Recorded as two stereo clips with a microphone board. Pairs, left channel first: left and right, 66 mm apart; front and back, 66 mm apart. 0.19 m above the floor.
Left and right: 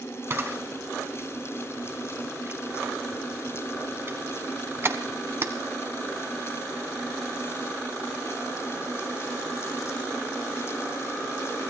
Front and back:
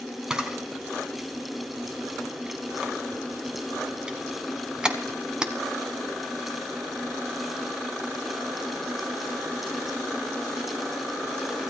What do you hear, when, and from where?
0.3 s a camera shutter: 110° right, 1.2 m